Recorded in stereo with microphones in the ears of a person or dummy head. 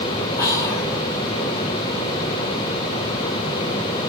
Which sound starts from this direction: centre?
Whispering, at 0.4 s.